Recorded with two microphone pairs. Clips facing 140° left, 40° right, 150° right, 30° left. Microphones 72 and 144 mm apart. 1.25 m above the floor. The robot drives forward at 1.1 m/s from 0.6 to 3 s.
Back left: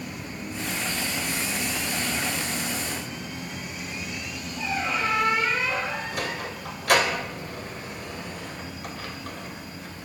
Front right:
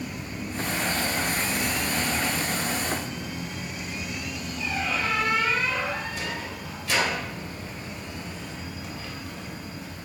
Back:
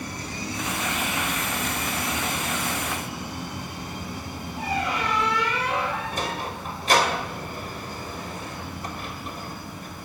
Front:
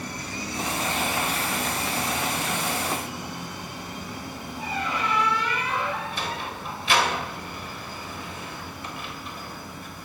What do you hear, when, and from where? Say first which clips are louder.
4.6 s a squeak: back left 2 dB, back 3 dB; 155° right, 8.5 m
6.1 s a sliding door: back left 2 dB, back 2 dB; 165° left, 2.5 m